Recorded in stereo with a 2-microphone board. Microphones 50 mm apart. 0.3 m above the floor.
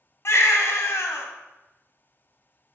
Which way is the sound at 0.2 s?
60° left (ahead or behind).